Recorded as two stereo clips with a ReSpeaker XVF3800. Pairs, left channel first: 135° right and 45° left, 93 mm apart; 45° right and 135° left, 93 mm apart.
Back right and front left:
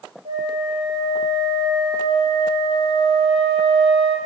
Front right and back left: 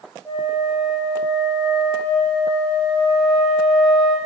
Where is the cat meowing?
No cat meowing in this recording.